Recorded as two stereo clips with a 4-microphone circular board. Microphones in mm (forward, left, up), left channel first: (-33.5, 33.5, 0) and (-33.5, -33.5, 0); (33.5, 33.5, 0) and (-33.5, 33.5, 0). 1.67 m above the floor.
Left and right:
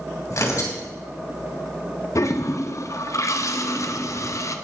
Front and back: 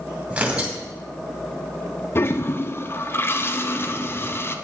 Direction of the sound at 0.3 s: 115° left.